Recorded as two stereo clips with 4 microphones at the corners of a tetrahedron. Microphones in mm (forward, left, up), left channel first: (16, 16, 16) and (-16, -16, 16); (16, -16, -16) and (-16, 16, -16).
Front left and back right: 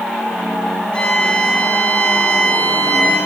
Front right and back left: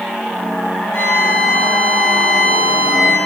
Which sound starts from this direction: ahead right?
A violin, at 0.9 s.